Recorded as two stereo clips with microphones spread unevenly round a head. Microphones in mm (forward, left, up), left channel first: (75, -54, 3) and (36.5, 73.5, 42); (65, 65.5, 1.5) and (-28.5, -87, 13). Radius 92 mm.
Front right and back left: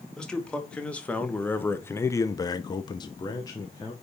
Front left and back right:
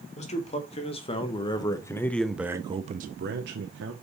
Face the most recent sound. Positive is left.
turn(degrees=-135)